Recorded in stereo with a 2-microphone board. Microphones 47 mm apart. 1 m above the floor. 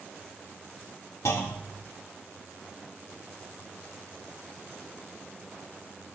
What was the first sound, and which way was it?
A clunk, 85° left.